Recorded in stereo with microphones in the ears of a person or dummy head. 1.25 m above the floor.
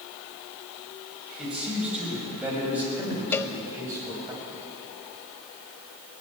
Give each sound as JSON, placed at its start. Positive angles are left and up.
{"t": 1.4, "sound": "a man speaking", "side_deg": -5, "distance_m": 6.0}
{"t": 3.3, "sound": "a cowbell", "side_deg": 20, "distance_m": 0.6}